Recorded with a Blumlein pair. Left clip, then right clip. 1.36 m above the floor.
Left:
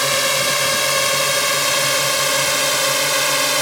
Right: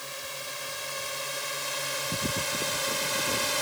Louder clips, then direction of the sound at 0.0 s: Left 20 dB; 50° left.